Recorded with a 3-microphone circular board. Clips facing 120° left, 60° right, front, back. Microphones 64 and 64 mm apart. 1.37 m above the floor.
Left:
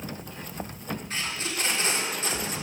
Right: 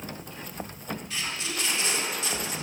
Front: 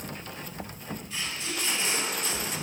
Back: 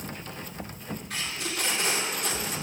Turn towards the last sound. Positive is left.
turn(degrees=170)